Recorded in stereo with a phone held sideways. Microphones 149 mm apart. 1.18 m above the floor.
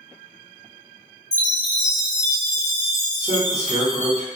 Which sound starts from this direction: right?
A man speaking, at 3.2 s.